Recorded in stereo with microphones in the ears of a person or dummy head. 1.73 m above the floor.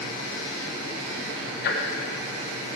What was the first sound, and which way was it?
Ticking, 60° left (ahead or behind).